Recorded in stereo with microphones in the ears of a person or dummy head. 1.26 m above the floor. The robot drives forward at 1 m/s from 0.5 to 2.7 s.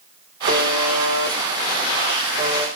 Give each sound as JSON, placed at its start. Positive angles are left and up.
{"t": 0.5, "sound": "a buzzer", "side_deg": -60, "distance_m": 4.0}